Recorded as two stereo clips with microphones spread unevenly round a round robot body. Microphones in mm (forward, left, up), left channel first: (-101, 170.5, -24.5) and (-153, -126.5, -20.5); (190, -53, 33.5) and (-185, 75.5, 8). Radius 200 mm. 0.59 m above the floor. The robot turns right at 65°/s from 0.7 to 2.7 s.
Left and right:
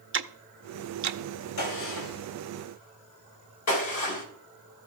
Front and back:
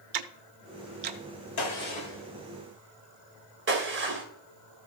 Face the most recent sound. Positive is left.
turn(degrees=100)